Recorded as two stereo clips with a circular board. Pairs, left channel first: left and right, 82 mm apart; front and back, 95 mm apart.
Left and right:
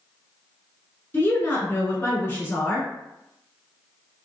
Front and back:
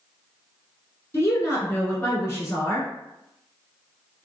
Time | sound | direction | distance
1.1 | a woman speaking | 45° left | 1.7 m